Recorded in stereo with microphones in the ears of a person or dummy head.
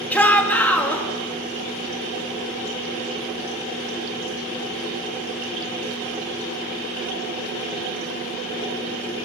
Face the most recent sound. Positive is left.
turn(degrees=10)  # may be behind; listen again after turning